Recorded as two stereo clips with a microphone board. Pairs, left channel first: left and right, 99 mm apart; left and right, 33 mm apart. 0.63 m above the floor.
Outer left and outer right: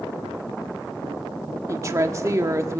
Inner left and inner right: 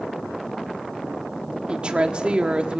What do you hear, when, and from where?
1.7 s a woman speaking: 35° right (ahead or behind), 1.5 m